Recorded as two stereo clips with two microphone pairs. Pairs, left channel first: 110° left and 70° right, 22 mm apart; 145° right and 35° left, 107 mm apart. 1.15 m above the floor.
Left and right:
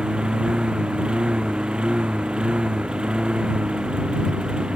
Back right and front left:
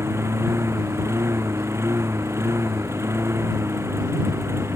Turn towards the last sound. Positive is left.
turn(degrees=-30)